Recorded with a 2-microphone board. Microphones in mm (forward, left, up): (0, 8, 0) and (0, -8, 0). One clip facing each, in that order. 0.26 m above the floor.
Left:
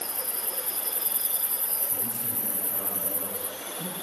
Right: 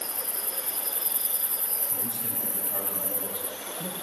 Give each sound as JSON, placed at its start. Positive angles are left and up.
{"t": 1.9, "sound": "a man speaking", "side_deg": -70, "distance_m": 4.0}